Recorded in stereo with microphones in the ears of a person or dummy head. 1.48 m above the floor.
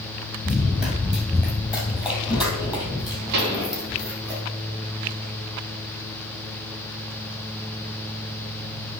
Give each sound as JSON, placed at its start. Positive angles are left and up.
{"t": 0.5, "sound": "running footsteps", "side_deg": -5, "distance_m": 2.0}
{"t": 3.3, "sound": "a pop", "side_deg": -60, "distance_m": 1.7}